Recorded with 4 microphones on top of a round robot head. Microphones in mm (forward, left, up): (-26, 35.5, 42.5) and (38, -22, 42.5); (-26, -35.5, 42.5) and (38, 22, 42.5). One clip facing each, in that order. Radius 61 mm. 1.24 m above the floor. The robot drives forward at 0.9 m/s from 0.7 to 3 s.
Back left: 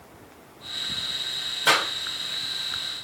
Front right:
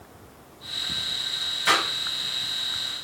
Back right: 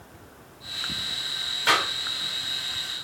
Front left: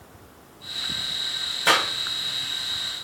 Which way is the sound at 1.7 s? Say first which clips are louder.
Back left 1 dB, front left 2 dB; 95° left.